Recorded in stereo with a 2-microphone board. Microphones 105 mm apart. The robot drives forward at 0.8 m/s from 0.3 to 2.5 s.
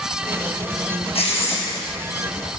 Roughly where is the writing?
Left.